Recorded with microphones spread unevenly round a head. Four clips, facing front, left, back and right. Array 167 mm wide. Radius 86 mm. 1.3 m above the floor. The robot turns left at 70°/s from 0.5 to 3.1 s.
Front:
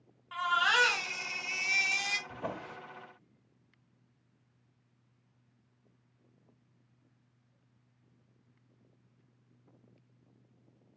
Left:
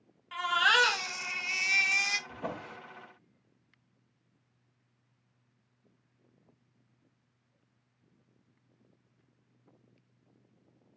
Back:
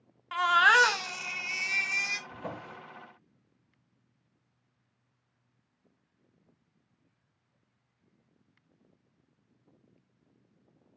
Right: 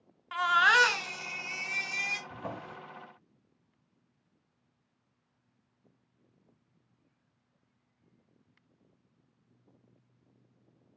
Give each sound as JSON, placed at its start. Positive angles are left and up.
{"t": 0.3, "sound": "a baby crying", "azimuth_deg": -170, "distance_m": 0.5}
{"t": 2.3, "sound": "a drawer", "azimuth_deg": 60, "distance_m": 1.9}